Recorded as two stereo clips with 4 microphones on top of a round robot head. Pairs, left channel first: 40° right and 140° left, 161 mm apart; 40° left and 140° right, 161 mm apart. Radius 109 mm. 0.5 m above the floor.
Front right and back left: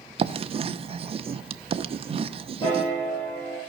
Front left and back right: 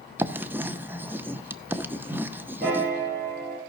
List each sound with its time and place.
0.2 s writing: 150° left, 0.7 m
2.6 s a piano: 105° right, 7.5 m